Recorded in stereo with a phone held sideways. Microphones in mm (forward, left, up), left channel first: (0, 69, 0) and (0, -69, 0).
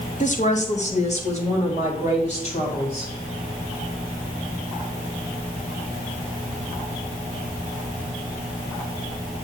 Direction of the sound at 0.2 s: 55° left (ahead or behind).